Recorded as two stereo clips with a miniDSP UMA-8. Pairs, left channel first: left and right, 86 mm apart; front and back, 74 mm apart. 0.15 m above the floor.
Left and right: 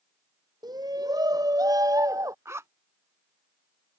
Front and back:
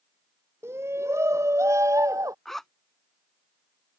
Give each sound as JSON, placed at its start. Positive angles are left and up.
{"t": 0.6, "sound": "a shout", "azimuth_deg": -125}
{"t": 2.5, "sound": "a zipper", "azimuth_deg": -80}